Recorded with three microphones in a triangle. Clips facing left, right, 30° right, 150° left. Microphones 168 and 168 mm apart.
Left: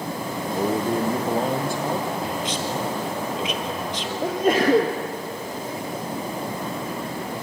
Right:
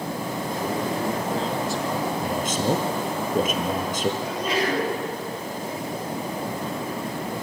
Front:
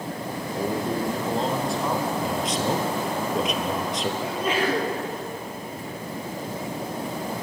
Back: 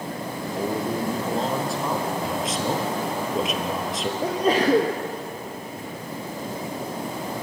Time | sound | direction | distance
0.5 | a man speaking | 65° left | 2 m
2.2 | a man speaking | 120° right | 2.5 m
4.2 | a sneeze | 110° left | 1.9 m